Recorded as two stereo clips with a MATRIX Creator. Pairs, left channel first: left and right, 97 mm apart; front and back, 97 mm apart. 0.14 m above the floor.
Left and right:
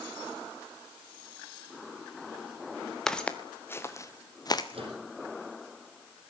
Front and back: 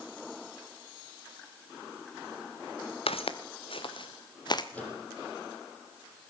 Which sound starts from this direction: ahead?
Footsteps, at 3.1 s.